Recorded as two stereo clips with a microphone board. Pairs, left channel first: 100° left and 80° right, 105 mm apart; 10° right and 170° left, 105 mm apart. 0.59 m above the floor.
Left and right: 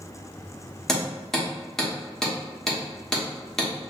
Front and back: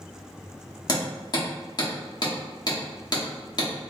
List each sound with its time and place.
0.9 s hammering: 20° left, 1.1 m